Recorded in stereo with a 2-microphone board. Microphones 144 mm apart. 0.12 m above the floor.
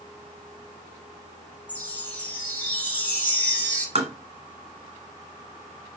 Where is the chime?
10° left (ahead or behind), 2.5 m.